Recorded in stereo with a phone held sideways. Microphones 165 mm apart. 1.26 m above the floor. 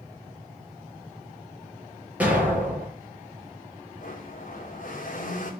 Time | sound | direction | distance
2.2 | an explosion | 10° right (ahead or behind) | 4.5 m
4.0 | a blender | 60° left (ahead or behind) | 3 m